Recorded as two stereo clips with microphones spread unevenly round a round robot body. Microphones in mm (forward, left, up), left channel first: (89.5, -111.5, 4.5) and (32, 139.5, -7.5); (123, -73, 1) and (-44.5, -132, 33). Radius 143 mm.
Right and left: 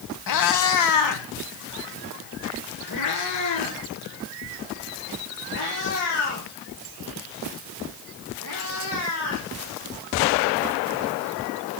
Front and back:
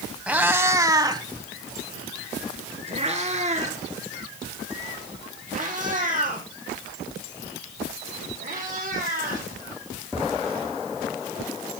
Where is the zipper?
I don't hear a zipper.